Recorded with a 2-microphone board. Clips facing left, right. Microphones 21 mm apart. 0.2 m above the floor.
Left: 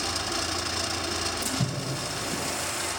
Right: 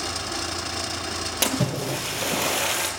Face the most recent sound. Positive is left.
turn(degrees=-65)  # may be behind; listen again after turning